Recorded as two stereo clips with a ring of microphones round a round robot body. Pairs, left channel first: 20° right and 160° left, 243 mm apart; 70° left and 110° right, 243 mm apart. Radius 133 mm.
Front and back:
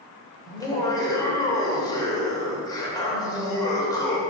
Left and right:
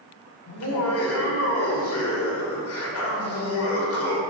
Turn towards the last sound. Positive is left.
turn(degrees=50)